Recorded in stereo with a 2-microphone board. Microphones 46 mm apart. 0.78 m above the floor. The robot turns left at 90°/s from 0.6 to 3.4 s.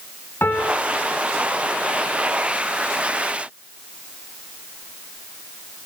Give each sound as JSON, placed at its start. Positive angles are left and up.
{"t": 0.4, "sound": "a piano", "side_deg": 60, "distance_m": 2.0}